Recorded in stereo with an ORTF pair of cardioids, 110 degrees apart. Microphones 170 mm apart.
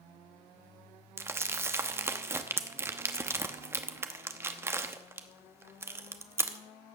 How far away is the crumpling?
About 1.0 m.